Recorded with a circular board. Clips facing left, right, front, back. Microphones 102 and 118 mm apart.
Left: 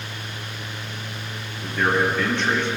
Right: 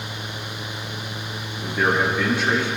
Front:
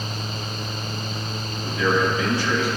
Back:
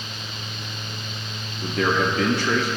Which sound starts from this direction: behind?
A man speaking, at 1.6 s.